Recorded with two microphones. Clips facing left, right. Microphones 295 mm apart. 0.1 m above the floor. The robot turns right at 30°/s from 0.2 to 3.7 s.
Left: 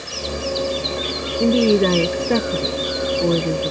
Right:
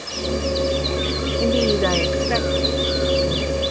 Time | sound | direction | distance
1.4 | a woman speaking | 25° left | ?